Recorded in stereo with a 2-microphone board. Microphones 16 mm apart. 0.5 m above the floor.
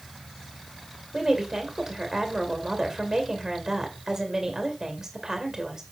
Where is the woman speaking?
30° right (ahead or behind), 2 m.